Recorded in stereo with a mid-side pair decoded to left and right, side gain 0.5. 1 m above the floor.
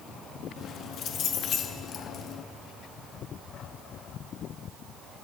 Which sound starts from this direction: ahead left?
Keys jangling, at 0.6 s.